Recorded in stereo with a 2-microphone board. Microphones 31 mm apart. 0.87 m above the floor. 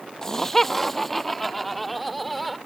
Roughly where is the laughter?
Centre.